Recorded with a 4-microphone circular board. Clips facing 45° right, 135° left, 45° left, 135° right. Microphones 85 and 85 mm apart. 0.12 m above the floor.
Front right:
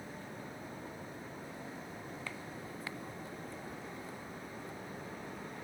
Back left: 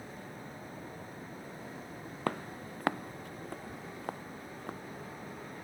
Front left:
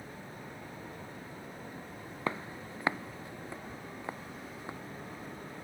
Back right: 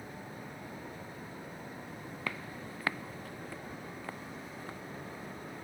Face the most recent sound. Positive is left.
turn(degrees=115)